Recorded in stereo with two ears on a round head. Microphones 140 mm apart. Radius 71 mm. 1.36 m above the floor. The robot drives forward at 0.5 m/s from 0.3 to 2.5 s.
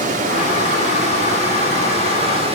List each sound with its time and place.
0.0 s running water: 55° right (ahead or behind), 3 m; by 2.5 s 40° right (ahead or behind), 4 m